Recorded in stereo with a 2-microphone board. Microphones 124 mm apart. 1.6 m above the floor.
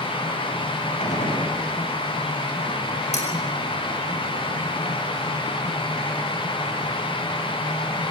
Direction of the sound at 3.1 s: 70° left (ahead or behind).